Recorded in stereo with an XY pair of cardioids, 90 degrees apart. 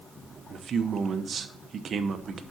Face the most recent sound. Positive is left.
turn(degrees=-55)